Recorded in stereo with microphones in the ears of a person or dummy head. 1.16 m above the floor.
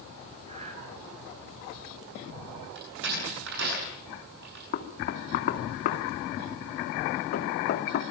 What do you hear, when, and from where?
0.5 s breathing: 35° right (ahead or behind), 5 m
2.8 s a door slam: 60° right (ahead or behind), 9 m
4.7 s knocking: 50° left (ahead or behind), 2.5 m